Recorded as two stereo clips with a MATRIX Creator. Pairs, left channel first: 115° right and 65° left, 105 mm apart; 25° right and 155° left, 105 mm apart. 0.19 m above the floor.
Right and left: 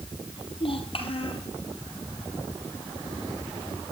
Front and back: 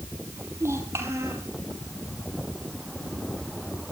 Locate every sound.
0.4 s a child speaking: 140° right, 3.5 m